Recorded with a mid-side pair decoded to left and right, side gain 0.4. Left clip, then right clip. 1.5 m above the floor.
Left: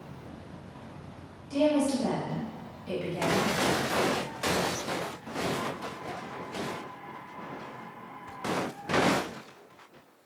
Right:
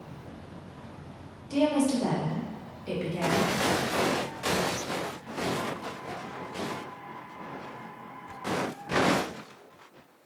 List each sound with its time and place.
1.5 s a woman speaking: 45° right, 1.8 m